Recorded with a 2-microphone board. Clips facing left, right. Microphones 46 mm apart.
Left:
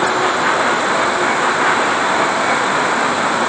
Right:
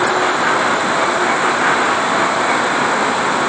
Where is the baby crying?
No baby crying in this recording.